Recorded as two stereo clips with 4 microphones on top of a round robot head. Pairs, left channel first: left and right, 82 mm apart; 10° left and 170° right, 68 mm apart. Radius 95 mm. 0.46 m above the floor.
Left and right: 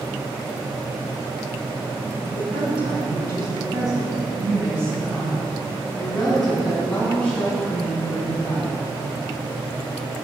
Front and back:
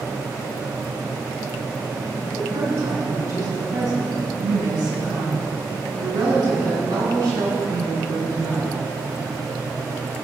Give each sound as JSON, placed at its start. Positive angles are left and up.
{"t": 2.2, "sound": "a woman speaking", "azimuth_deg": -105, "distance_m": 5.0}